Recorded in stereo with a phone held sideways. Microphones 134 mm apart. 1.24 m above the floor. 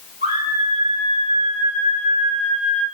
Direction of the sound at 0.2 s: 85° right.